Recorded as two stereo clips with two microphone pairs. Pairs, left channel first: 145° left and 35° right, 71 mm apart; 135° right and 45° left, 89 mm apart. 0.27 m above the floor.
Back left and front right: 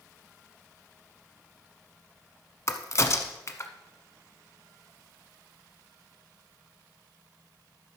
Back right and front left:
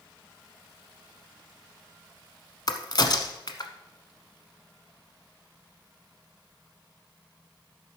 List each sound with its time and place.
2.7 s a crack: 170° right, 0.9 m